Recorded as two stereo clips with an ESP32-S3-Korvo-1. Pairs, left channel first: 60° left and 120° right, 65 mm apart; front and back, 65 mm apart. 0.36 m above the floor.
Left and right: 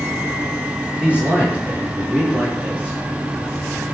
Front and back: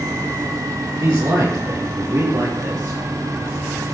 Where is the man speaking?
170° left, 6.5 m; by 3.0 s 165° left, 7.5 m.